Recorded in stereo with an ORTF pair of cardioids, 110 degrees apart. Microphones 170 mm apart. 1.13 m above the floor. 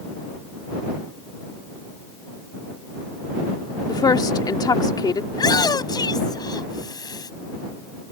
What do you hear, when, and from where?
3.9 s a woman speaking: 25° left
5.3 s a shout: 25° left